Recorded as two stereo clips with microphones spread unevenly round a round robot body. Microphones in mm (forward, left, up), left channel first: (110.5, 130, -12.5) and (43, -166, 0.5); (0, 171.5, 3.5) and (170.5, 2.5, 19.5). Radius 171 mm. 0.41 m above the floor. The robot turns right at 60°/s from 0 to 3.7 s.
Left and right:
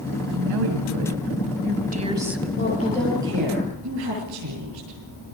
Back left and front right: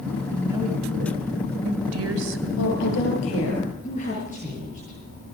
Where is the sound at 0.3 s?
140° right, 3.5 m; by 2.5 s 10° right, 3.5 m.